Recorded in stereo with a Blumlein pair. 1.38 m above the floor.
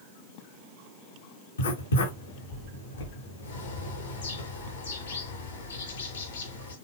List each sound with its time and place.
1.6 s writing: 70° left, 6 m
3.4 s a bird: 65° left, 6 m